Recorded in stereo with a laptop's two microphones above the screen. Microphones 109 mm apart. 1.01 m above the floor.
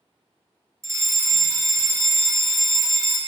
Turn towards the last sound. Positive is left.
turn(degrees=-25)  # may be behind; listen again after turning